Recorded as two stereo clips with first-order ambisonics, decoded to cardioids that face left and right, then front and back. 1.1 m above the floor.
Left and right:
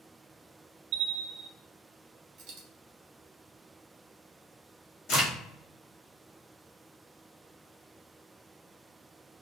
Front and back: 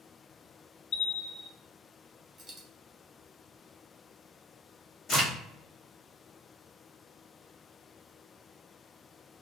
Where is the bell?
50° right, 0.5 m.